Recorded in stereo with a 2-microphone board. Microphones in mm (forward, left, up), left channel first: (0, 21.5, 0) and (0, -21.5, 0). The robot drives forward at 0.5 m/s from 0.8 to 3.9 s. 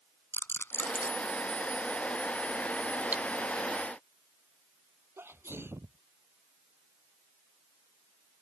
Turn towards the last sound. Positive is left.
turn(degrees=-70)  # may be behind; listen again after turning